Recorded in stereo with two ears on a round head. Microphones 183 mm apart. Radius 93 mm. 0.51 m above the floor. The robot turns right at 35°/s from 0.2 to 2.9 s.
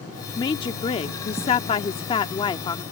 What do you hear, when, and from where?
0.4 s a woman speaking: 20° left (ahead or behind)